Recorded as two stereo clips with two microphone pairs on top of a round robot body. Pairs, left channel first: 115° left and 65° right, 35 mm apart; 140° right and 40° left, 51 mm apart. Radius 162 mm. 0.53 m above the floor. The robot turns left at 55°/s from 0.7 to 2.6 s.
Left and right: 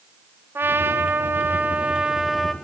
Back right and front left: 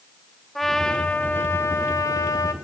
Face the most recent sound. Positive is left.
turn(degrees=-160)